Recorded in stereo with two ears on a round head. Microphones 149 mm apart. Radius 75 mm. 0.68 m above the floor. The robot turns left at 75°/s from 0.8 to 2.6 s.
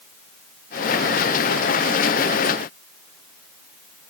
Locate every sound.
Only background noise.